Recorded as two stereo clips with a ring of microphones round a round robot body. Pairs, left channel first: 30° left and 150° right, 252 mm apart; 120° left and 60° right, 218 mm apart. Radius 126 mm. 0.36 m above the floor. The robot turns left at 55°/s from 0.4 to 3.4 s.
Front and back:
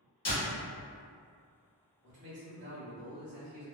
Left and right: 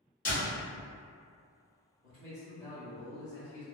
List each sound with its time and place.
0.2 s a door slam: 75° left, 1.5 m; by 0.6 s 65° left, 1.5 m
2.0 s a man speaking: 105° right, 1.1 m; by 3.6 s straight behind, 1.1 m